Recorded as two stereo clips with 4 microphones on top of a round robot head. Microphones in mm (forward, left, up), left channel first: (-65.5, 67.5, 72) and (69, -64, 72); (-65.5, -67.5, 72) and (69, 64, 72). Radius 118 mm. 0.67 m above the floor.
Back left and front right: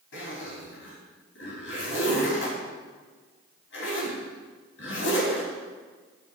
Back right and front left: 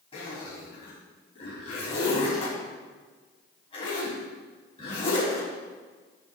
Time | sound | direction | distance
0.1 | a zipper | 160° left | 5 m